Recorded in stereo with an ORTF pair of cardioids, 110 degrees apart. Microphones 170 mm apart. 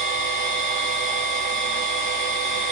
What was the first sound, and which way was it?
A machine running, 45° right.